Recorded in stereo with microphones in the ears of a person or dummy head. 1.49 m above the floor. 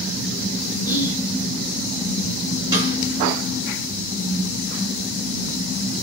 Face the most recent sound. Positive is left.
turn(degrees=-20)  # may be behind; listen again after turning